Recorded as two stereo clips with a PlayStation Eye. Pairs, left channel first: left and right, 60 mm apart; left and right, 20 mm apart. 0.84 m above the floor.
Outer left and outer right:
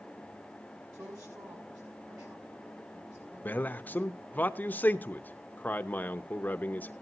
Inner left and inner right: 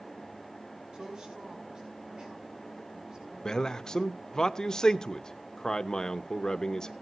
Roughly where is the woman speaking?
Right.